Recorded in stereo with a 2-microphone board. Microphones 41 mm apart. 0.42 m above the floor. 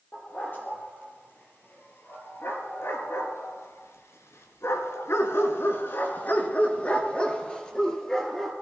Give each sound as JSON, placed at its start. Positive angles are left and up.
{"t": 0.1, "sound": "a dog barking", "side_deg": 45, "distance_m": 4.5}